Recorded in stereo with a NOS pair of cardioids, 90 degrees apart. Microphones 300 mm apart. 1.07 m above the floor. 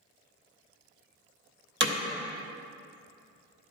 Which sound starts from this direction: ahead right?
Hammering, at 1.8 s.